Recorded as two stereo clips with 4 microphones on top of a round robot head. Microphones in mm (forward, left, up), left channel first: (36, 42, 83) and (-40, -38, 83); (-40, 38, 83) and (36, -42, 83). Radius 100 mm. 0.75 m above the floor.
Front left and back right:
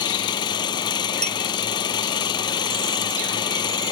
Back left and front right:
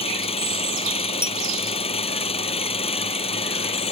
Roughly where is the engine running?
Left.